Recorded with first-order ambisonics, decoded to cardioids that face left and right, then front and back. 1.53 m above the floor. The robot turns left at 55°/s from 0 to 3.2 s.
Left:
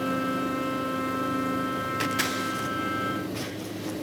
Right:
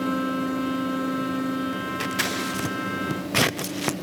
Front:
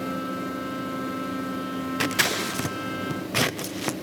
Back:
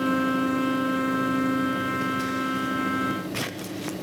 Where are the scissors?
5° left, 0.6 m; by 3.9 s 60° right, 0.6 m.